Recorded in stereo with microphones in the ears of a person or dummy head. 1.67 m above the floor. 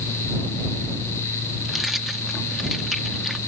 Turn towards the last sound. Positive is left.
turn(degrees=0)  # may be behind; listen again after turning